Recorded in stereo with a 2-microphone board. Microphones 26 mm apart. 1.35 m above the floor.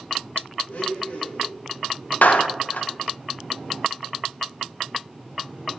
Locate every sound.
0.7 s a blender: 80° left, 2.5 m
2.2 s a clap: 75° left (ahead or behind), 0.8 m